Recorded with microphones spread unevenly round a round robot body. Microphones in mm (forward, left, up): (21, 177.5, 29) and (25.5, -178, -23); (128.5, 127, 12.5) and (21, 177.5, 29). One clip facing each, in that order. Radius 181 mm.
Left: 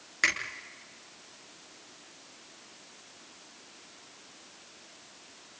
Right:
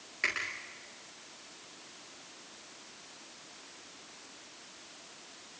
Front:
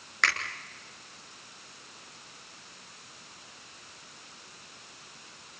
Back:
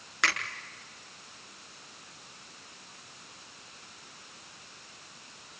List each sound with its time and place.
0.2 s a finger snap: 75° left, 6 m